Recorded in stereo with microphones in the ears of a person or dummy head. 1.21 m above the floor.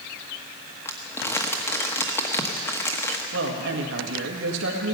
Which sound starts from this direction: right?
A woman speaking, at 3.3 s.